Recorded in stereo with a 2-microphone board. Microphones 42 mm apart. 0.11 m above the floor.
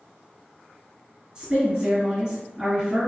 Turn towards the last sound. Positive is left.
turn(degrees=-20)  # may be behind; listen again after turning